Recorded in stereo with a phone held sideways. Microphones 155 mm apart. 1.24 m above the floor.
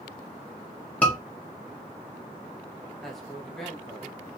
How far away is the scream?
About 1.4 m.